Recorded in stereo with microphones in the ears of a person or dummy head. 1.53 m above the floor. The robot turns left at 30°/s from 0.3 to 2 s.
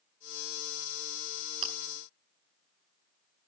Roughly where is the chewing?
Right.